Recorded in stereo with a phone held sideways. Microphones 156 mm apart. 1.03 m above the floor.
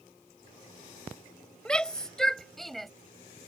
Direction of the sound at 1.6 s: 5° left (ahead or behind).